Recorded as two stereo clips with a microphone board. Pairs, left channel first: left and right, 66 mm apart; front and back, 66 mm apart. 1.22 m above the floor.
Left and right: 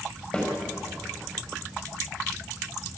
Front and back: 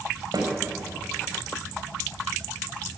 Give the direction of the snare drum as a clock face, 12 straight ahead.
7 o'clock.